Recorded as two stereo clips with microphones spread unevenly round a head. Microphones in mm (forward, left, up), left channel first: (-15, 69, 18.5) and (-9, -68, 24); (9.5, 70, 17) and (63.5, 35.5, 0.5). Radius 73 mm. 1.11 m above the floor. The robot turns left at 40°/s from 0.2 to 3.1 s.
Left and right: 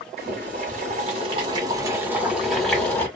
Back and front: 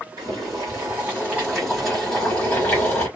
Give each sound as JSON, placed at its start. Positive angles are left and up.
{"t": 0.2, "sound": "boiling", "azimuth_deg": -80, "distance_m": 1.2}